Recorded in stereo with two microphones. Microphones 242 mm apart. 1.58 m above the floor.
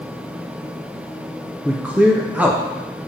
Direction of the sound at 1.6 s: 5° right (ahead or behind).